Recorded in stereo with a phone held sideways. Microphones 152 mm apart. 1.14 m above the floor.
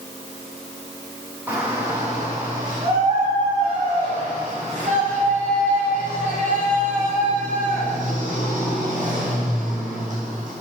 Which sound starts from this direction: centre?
A shout, at 1.5 s.